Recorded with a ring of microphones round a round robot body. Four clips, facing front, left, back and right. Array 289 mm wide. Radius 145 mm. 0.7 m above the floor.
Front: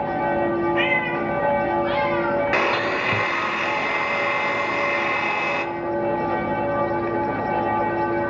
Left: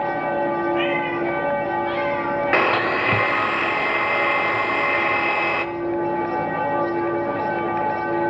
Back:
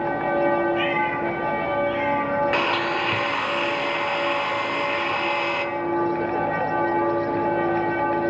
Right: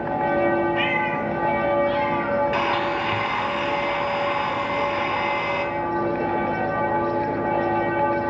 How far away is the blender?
About 1.1 m.